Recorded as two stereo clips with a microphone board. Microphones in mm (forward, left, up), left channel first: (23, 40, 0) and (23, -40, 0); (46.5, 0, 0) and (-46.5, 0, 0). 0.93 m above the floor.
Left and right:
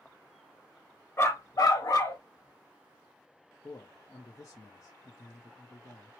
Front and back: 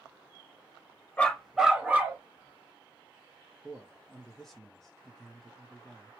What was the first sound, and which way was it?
A dog barking, 60° left.